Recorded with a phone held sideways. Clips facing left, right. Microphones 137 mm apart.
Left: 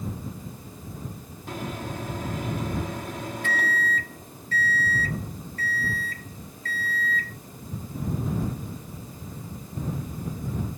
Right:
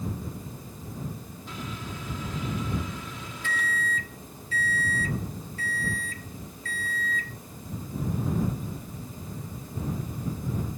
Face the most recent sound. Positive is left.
turn(degrees=50)  # may be behind; listen again after turning